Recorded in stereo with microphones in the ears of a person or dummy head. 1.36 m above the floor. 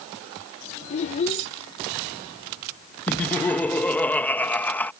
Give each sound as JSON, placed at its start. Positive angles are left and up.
{"t": 0.9, "sound": "a child speaking", "side_deg": 35}
{"t": 3.1, "sound": "laughter", "side_deg": 10}